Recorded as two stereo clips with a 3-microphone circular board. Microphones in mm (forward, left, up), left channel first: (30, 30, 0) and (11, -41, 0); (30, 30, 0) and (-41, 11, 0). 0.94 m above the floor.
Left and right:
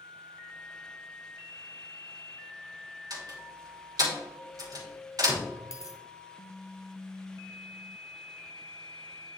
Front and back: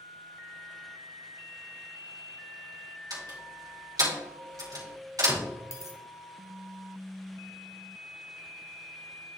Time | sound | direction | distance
3.1 | a door slam | 135° right | 2.5 m
5.7 | a dropped coin | 50° left | 1.1 m